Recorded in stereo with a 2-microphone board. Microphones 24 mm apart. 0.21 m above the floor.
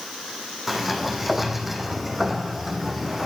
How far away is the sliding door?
About 1.5 m.